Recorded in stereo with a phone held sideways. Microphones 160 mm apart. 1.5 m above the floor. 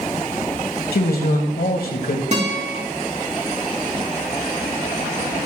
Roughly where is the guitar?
Right.